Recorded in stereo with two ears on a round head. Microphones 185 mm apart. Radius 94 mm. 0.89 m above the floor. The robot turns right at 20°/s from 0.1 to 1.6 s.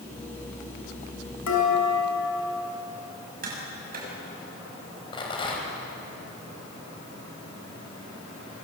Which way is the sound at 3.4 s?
45° right (ahead or behind).